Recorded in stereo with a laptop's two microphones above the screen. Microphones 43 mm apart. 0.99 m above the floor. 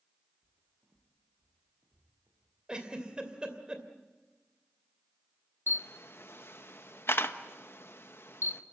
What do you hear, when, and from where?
0.4 s footsteps: 50° right (ahead or behind), 3.5 m; by 2.5 s 45° right (ahead or behind), 5 m
2.7 s a giggle: 20° right (ahead or behind), 2.5 m
5.7 s a camera shutter: 60° left (ahead or behind), 1.1 m